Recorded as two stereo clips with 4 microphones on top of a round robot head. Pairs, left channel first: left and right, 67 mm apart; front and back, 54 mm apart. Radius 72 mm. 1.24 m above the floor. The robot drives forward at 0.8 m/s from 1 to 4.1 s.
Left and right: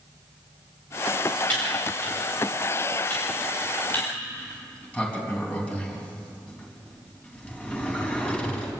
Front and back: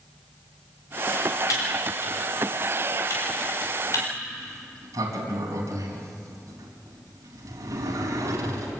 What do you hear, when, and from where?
1.5 s typing on a keyboard: 15° left, 7 m; by 4.0 s 20° left, 5 m
4.3 s a sliding door: 160° left, 4 m